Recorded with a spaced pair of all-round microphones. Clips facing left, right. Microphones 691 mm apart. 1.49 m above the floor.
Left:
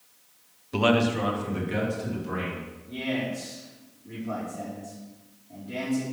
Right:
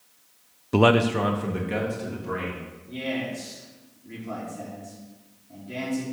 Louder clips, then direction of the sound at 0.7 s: Right 3 dB; 70° right (ahead or behind).